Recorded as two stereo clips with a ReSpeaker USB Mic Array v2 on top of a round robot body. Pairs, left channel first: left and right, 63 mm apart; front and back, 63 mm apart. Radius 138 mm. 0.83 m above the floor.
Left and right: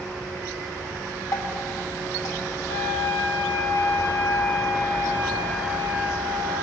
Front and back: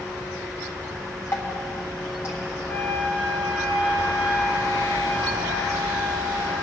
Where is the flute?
55° left, 1.5 m.